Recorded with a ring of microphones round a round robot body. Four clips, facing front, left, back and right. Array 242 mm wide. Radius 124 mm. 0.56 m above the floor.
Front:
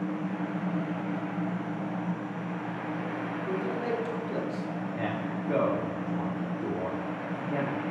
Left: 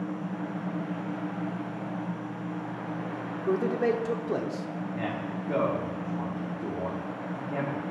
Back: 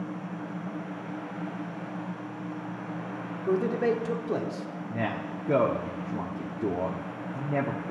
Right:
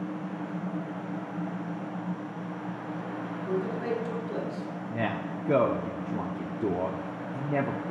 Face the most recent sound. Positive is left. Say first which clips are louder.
# right 3 dB, back 3 dB
turn(degrees=-125)